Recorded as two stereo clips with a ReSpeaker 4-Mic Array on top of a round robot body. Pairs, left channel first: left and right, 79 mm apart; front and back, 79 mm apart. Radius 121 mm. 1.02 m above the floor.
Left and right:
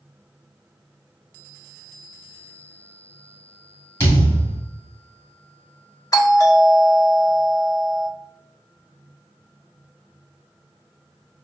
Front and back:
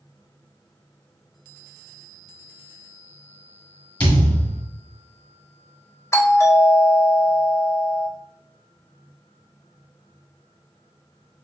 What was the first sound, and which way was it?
A thud, 30° left.